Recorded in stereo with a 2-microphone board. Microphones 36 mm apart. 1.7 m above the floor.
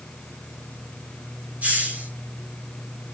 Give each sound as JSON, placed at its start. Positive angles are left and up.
{"t": 1.6, "sound": "a hiss", "side_deg": -45, "distance_m": 6.0}